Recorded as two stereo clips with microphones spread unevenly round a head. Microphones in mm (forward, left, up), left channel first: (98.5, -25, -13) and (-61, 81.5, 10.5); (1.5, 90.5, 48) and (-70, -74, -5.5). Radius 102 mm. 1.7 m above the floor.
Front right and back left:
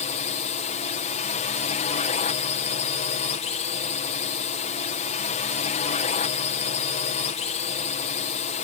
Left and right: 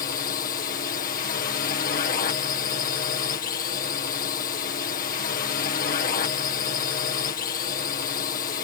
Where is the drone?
15° left.